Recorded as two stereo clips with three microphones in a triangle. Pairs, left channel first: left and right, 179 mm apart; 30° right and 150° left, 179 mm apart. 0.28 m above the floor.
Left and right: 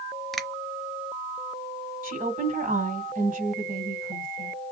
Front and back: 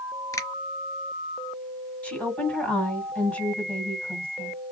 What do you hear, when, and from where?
0.3 s a finger snap: 5° left, 0.7 m
2.0 s a woman speaking: 110° right, 1.6 m